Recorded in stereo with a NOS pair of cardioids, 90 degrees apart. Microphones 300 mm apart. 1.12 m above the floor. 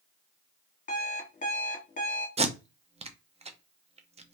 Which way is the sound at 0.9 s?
25° left.